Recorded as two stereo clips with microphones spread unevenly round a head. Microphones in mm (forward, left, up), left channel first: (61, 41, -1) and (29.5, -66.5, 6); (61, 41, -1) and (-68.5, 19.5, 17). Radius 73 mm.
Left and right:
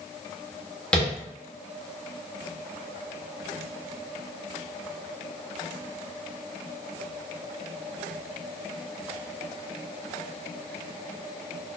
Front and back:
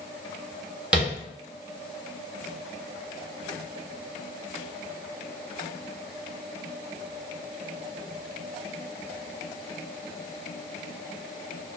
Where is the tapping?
145° left, 1.2 m.